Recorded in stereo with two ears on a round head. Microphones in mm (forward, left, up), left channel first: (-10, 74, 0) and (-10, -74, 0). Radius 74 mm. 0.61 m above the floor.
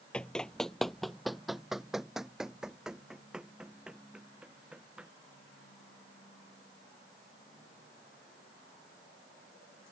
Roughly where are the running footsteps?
Centre.